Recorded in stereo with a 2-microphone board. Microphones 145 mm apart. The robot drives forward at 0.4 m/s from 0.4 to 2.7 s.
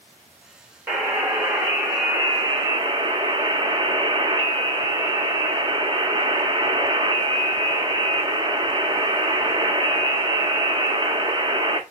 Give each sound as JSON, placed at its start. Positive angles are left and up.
{"t": 0.9, "sound": "a buzzer", "side_deg": -15, "distance_m": 1.1}